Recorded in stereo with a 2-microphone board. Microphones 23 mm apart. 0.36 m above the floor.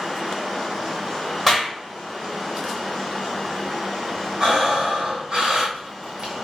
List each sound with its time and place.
1.5 s a clap: 5° left (ahead or behind), 1.1 m
4.4 s breathing: 40° right (ahead or behind), 1.5 m